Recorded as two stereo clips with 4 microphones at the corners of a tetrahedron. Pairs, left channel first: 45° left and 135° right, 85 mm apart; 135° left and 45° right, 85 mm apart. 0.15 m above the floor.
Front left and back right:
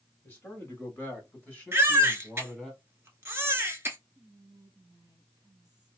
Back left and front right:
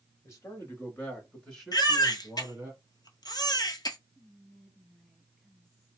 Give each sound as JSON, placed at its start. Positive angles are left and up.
{"t": 0.2, "sound": "a man speaking", "azimuth_deg": 100, "distance_m": 1.9}
{"t": 1.7, "sound": "a baby crying", "azimuth_deg": 165, "distance_m": 0.8}
{"t": 4.2, "sound": "whispering", "azimuth_deg": -150, "distance_m": 1.6}